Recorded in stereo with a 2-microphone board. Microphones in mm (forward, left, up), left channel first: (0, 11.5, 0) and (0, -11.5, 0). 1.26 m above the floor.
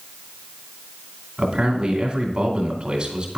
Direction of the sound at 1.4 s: 40° right (ahead or behind).